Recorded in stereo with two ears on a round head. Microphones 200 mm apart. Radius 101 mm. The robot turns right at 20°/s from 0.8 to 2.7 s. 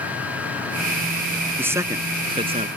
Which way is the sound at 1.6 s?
10° right (ahead or behind).